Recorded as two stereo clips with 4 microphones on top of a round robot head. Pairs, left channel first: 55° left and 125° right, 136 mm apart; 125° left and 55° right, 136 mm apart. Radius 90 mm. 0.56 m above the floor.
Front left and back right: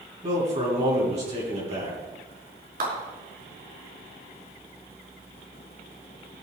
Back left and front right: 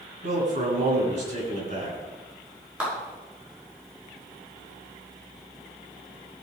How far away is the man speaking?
About 5.5 m.